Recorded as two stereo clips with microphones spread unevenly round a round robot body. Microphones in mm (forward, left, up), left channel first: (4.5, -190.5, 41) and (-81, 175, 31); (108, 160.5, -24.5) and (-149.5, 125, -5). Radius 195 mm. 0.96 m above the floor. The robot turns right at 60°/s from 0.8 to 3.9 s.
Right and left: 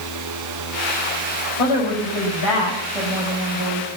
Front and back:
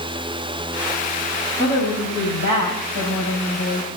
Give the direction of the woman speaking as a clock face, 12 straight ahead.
3 o'clock.